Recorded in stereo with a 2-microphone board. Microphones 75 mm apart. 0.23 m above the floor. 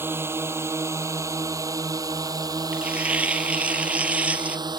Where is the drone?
30° right (ahead or behind); by 4.8 s 70° right (ahead or behind).